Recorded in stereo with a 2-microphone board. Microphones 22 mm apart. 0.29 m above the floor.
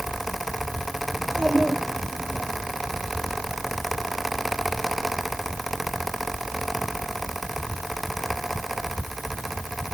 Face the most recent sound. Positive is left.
turn(degrees=40)  # may be behind; listen again after turning